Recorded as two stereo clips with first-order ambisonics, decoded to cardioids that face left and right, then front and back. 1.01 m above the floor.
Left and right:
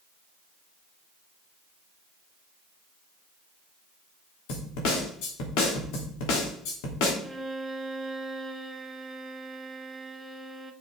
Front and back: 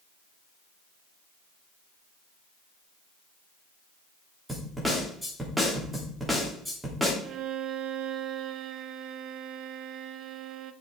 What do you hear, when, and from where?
4.5 s a snare drum: 90° left, 3 m
7.2 s a violin: 170° right, 0.7 m